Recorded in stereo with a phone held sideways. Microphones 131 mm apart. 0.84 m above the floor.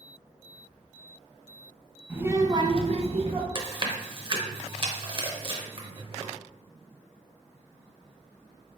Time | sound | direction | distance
2.1 | a child speaking | 15° right (ahead or behind) | 0.8 m
3.5 | chewing | 40° right (ahead or behind) | 0.8 m